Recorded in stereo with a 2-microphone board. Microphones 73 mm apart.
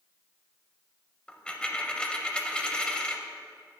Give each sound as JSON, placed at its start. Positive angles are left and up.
{"t": 1.3, "sound": "a dropped coin", "side_deg": 10, "distance_m": 0.5}